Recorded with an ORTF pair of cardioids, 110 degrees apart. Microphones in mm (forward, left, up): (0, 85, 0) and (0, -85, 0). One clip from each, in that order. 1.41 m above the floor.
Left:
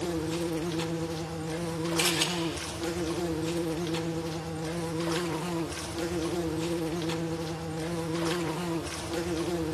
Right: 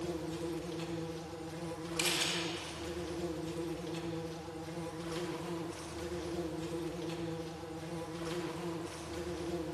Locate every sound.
0.0 s an insect: 60° left, 1.2 m
2.0 s a camera shutter: 40° left, 3.5 m